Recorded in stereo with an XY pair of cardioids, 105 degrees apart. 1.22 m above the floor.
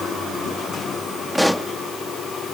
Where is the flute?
No flute in this recording.